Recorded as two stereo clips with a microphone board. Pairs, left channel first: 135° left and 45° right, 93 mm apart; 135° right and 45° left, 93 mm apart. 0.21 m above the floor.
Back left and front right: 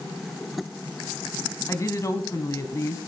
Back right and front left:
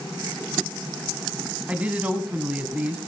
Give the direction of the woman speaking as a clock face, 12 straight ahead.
8 o'clock.